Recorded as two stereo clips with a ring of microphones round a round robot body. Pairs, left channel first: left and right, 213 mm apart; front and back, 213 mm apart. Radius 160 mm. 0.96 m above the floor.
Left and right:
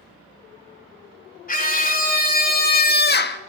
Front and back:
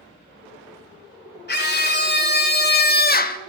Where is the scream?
40° left, 3 m; by 3.4 s 50° left, 1.0 m.